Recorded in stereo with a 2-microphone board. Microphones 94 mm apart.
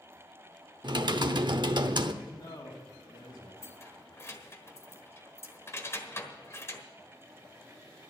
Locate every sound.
0.8 s typing on a keyboard: 55° right (ahead or behind), 0.7 m
2.2 s a man speaking: 60° left (ahead or behind), 3 m
3.6 s keys jangling: 30° left (ahead or behind), 1.4 m